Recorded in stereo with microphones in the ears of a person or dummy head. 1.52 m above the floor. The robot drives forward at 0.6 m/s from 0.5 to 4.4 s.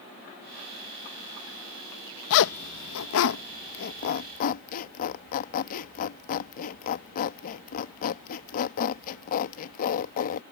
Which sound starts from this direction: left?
A zipper, at 2.3 s.